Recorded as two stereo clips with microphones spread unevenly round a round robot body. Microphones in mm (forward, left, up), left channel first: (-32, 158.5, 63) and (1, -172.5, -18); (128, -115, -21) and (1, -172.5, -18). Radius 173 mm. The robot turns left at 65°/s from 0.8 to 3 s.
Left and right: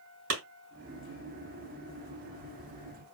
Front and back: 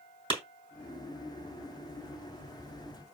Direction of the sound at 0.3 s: 105° right.